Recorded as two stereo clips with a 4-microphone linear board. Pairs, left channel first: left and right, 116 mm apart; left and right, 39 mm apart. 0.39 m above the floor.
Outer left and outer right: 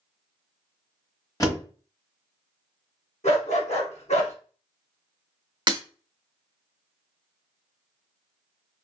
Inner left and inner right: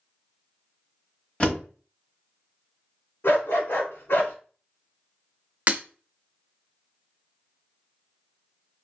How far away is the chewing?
No chewing in this recording.